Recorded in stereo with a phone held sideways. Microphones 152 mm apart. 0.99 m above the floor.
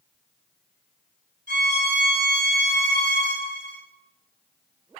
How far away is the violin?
About 1.7 m.